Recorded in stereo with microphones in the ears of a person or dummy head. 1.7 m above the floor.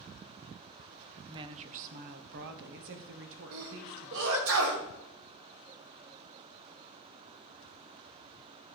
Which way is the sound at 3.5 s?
70° right (ahead or behind).